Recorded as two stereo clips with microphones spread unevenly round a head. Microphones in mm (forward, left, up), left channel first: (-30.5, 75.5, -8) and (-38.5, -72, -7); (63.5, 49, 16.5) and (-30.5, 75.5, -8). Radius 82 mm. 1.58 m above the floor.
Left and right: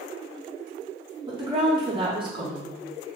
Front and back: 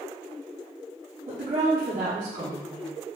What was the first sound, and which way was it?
A woman speaking, 150° right.